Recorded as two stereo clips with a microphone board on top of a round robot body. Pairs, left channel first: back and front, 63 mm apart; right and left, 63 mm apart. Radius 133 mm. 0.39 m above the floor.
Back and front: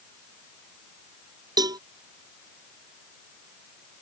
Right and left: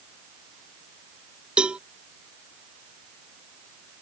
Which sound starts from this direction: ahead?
A cowbell, at 1.6 s.